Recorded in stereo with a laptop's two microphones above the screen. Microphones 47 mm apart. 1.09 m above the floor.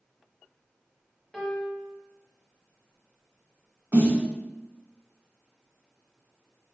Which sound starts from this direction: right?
A snare drum, at 3.9 s.